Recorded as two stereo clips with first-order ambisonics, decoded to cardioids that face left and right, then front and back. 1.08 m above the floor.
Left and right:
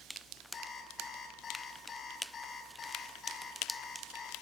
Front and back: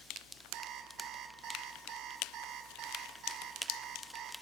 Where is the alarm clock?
150° left, 1.4 m.